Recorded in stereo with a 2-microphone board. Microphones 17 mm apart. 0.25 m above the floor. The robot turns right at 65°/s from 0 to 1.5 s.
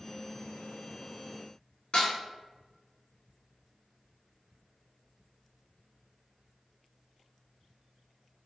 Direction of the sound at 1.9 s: 60° left (ahead or behind).